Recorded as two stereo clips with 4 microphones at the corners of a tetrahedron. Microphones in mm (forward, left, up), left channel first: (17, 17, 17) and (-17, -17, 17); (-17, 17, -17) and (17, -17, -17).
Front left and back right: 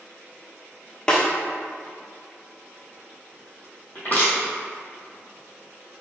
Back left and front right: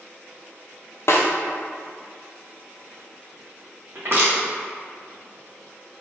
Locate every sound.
1.1 s a snare drum: 120° left, 0.7 m
4.0 s crushing: 10° right, 1.5 m